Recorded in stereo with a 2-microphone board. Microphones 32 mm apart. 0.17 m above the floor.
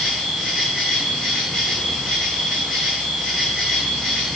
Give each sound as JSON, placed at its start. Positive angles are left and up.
{"t": 0.0, "sound": "an insect", "side_deg": 0, "distance_m": 7.0}